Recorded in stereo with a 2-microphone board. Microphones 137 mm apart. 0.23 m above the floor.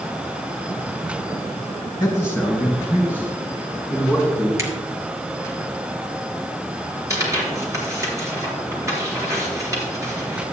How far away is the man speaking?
About 2.5 m.